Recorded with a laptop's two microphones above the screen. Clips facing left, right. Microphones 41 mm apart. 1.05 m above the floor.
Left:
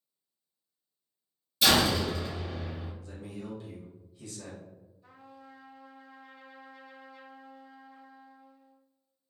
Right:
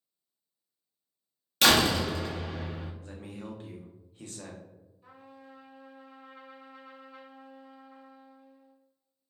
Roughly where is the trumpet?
Right.